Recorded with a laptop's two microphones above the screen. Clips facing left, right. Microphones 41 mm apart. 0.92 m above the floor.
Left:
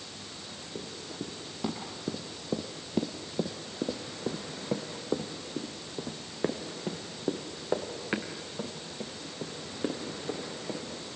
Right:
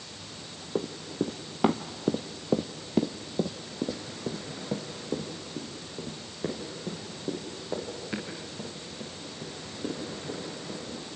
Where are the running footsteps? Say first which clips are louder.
Right 10 dB; 55° right (ahead or behind), 1.6 m; by 10.8 s 35° left (ahead or behind), 5.5 m.